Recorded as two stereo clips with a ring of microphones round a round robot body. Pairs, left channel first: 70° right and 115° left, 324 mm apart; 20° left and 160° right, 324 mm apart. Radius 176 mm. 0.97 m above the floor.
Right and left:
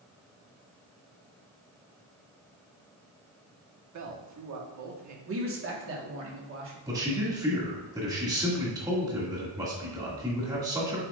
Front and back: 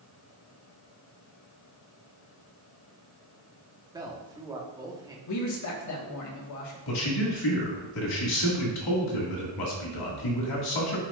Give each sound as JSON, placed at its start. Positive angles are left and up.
{"t": 3.9, "sound": "a man speaking", "azimuth_deg": 125, "distance_m": 1.4}
{"t": 5.3, "sound": "a man speaking", "azimuth_deg": 60, "distance_m": 1.7}
{"t": 6.9, "sound": "a man speaking", "azimuth_deg": 35, "distance_m": 2.0}